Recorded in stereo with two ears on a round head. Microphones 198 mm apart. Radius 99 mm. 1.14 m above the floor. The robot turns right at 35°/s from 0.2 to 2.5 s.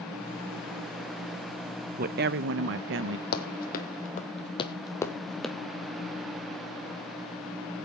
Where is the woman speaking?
40° right (ahead or behind), 0.6 m; by 3.2 s 55° right (ahead or behind), 0.6 m.